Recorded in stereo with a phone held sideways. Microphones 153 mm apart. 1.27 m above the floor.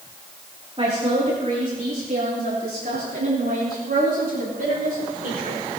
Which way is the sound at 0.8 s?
45° right (ahead or behind).